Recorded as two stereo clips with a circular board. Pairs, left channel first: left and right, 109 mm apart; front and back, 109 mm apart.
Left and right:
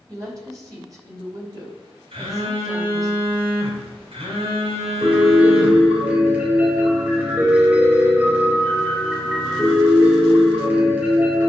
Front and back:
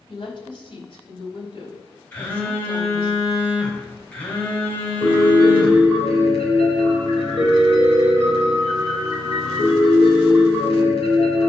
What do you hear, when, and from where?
0.1 s a woman speaking: 35° right, 3.5 m
2.1 s a phone buzzing: 70° right, 3.5 m
5.0 s a piano: 20° right, 4.5 m